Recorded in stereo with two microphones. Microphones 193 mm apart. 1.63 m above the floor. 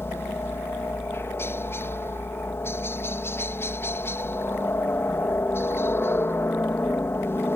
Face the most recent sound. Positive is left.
turn(degrees=10)  # may be behind; listen again after turning